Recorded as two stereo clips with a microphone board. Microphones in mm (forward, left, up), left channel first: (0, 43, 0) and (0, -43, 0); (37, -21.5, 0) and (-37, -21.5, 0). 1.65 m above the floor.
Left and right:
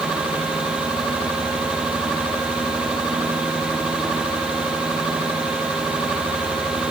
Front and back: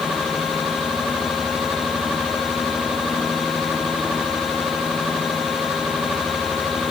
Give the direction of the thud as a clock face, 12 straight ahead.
No thud in this recording.